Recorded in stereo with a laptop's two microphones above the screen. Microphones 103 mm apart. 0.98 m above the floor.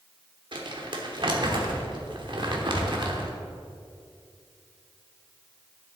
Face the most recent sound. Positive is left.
turn(degrees=-50)  # may be behind; listen again after turning